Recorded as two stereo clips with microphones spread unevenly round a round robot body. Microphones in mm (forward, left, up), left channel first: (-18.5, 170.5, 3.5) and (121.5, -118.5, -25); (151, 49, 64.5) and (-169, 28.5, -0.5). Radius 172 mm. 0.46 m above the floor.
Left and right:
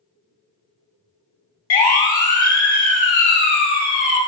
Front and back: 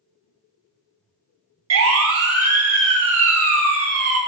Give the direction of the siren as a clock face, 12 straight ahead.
7 o'clock.